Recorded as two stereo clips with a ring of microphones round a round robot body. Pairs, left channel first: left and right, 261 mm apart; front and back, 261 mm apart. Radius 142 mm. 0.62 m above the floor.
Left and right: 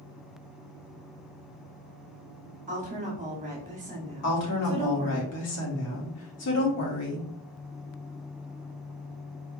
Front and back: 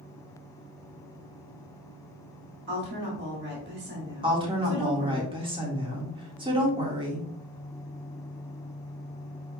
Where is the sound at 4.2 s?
110° left, 1.5 m.